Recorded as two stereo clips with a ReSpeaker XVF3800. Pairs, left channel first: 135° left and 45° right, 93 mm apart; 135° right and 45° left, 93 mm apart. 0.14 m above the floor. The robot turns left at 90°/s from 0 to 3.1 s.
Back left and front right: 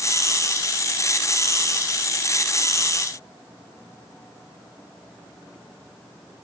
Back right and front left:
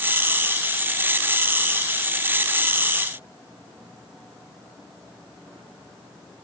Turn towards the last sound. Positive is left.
No sound to turn to.